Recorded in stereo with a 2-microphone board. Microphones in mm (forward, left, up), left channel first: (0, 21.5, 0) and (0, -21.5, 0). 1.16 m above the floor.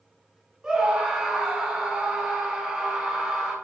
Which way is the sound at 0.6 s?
20° right (ahead or behind).